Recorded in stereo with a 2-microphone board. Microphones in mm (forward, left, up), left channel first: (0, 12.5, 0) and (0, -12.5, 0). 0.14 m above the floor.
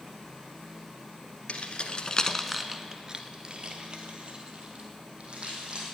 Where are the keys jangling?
50° left (ahead or behind), 1.4 m; by 5.8 s 50° right (ahead or behind), 4.5 m.